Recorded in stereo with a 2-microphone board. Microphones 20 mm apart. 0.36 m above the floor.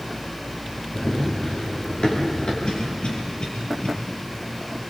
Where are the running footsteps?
55° left (ahead or behind), 8.5 m; by 2.5 s 50° left (ahead or behind), 6.5 m.